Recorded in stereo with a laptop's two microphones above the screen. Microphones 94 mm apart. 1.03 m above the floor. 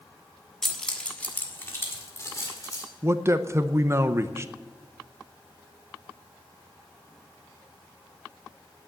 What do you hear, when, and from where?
0.6 s keys jangling: 5° left (ahead or behind), 1.3 m; by 2.9 s 40° left (ahead or behind), 2.5 m
3.0 s a man speaking: 30° right (ahead or behind), 0.7 m